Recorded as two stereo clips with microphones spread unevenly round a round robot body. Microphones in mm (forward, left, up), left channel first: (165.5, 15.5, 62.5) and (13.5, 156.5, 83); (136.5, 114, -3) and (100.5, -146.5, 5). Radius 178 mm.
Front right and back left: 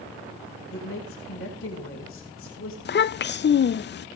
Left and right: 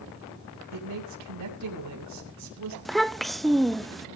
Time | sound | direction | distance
0.7 | a man speaking | 85° right | 7.5 m
2.9 | a child speaking | 5° right | 0.5 m